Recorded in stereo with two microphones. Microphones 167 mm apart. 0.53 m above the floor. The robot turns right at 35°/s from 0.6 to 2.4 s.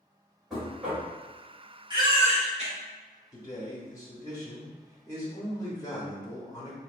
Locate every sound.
0.5 s knocking: centre (ahead or behind), 1.8 m; by 1.1 s 15° right (ahead or behind), 1.8 m
1.9 s a baby crying: 25° right (ahead or behind), 1.1 m; by 2.7 s 40° right (ahead or behind), 1.1 m
3.3 s a man speaking: 20° left (ahead or behind), 0.9 m